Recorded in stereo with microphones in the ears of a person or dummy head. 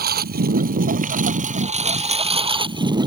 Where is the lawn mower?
50° right (ahead or behind); by 3.1 s 20° right (ahead or behind).